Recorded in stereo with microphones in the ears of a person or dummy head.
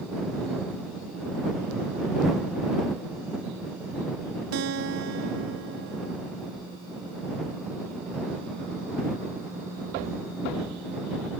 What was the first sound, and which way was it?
A guitar, 75° right (ahead or behind).